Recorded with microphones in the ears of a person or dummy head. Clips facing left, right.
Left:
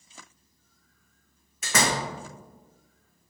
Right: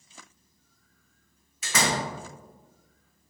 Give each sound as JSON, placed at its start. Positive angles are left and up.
{"t": 1.6, "sound": "a door slam", "side_deg": 55, "distance_m": 0.8}